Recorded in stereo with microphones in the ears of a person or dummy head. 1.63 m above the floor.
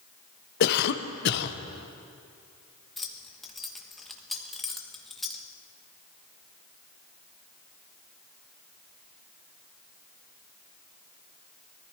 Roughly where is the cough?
Left.